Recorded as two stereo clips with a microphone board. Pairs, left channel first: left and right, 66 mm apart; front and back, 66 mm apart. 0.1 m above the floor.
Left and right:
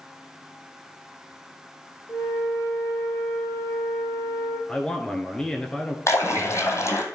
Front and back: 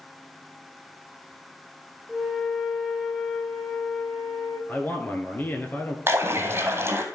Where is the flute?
90° left, 2.5 m.